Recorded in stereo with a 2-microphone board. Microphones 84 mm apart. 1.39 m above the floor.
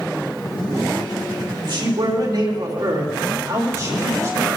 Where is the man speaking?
65° right (ahead or behind), 2.5 m; by 4.5 s 35° right (ahead or behind), 3 m.